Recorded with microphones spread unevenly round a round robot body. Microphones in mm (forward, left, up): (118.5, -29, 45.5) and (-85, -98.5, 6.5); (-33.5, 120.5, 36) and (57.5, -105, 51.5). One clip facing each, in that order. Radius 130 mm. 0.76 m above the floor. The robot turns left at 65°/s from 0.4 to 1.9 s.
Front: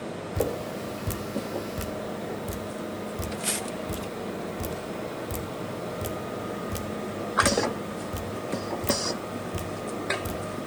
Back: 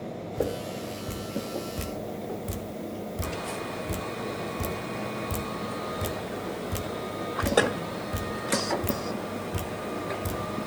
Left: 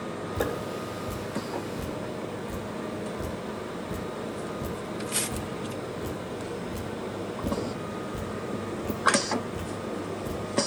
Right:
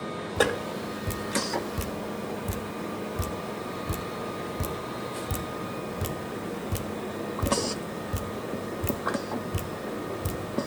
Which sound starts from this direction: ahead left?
Dripping, at 0.3 s.